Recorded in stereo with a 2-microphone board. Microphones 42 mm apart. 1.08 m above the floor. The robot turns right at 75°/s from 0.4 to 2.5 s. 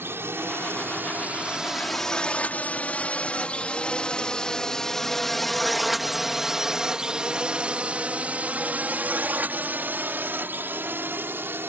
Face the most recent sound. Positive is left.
turn(degrees=-60)  # may be behind; listen again after turning